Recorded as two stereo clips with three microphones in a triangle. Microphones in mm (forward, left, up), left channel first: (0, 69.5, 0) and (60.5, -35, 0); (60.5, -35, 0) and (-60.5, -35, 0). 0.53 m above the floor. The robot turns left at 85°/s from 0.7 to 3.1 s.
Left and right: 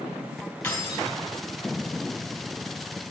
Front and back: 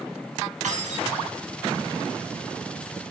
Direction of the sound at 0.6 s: 160° right.